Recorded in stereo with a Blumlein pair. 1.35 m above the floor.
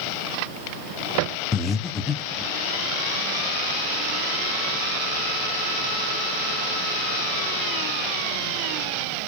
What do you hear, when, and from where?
1.5 s breathing: 10° left, 0.6 m